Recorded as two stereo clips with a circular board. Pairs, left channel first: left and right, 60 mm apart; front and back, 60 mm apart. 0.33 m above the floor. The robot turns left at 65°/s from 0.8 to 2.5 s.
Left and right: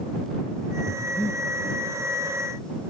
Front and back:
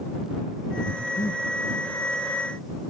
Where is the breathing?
60° left; by 1.4 s 25° left.